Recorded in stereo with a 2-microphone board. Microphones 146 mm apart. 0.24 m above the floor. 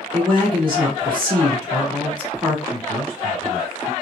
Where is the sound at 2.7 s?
40° right (ahead or behind), 2.5 m.